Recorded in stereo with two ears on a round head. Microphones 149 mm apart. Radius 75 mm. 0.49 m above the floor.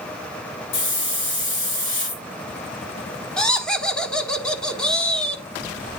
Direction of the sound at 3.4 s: 5° left (ahead or behind).